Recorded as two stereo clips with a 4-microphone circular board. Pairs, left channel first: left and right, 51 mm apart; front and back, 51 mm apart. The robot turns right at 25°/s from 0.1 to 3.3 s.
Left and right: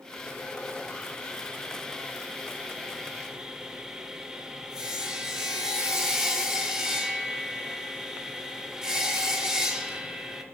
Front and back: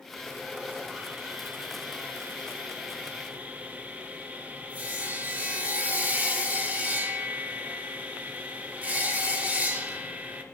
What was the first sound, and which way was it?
Sawing, 130° left.